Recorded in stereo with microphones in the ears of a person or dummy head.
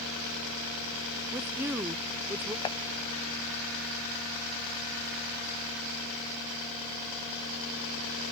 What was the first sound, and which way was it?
A woman speaking, 15° right (ahead or behind).